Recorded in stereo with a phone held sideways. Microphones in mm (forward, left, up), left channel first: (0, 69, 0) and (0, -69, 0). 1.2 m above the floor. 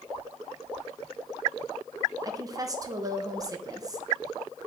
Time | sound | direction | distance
2.2 | a woman speaking | 25° right (ahead or behind) | 0.8 m